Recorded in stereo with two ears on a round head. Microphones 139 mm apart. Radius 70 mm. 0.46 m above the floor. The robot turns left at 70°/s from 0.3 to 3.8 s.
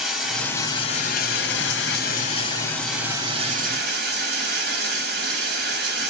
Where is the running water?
Straight behind, 1.4 m; by 6.1 s 65° right, 1.4 m.